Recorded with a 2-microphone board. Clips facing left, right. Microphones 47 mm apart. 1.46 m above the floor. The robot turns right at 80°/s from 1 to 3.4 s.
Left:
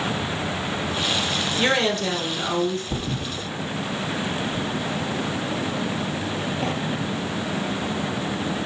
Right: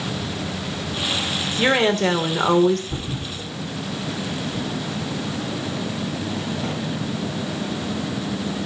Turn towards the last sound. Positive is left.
turn(degrees=65)  # may be behind; listen again after turning